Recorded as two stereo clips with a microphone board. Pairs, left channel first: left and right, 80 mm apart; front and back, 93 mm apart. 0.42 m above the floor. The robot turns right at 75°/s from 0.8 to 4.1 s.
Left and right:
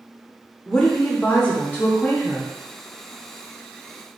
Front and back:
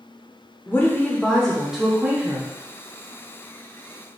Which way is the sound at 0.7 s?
30° left.